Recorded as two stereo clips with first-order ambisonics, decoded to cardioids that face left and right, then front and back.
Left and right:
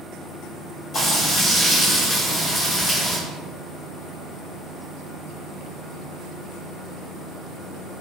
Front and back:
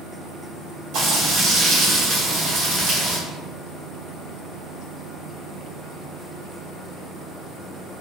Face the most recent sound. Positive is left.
turn(degrees=165)